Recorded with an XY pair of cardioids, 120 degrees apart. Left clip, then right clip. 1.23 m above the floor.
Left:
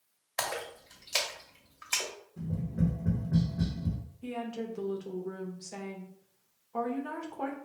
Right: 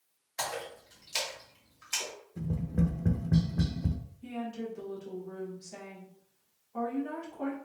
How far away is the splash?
About 1.8 m.